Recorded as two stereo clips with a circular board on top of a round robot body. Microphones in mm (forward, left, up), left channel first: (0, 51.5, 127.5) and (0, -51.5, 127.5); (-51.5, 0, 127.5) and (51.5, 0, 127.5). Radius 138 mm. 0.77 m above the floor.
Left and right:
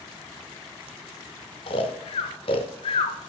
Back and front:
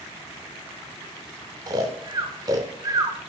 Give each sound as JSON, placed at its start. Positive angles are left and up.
{"t": 1.7, "sound": "snoring", "azimuth_deg": 55, "distance_m": 0.6}